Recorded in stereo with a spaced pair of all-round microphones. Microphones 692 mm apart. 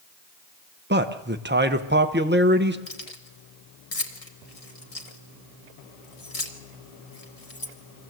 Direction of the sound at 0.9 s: 15° right (ahead or behind).